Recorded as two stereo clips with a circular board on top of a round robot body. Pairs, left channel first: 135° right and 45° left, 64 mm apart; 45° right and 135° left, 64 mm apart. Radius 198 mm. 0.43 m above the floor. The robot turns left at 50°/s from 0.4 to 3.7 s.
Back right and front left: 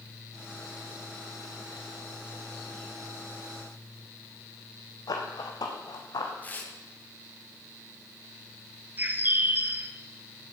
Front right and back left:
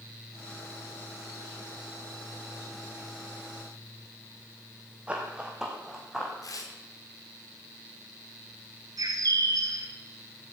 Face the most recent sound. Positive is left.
turn(degrees=105)